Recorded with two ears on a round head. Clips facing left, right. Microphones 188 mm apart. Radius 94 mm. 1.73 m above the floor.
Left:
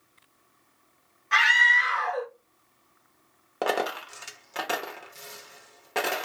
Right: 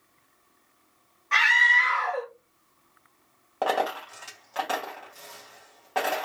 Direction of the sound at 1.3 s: 10° left (ahead or behind).